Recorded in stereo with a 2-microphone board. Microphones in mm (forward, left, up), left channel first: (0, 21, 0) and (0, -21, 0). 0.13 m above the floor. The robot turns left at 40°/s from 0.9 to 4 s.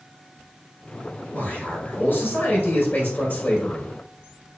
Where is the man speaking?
130° left, 1.6 m; by 3.9 s 30° left, 1.6 m.